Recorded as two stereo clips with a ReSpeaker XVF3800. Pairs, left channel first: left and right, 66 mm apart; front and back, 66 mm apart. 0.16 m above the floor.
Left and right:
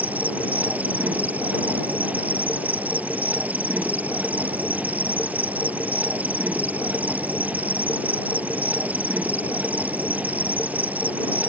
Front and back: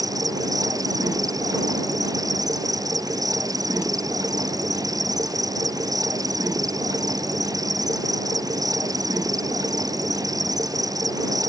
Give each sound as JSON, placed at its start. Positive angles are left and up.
{"t": 0.0, "sound": "an insect", "azimuth_deg": -155}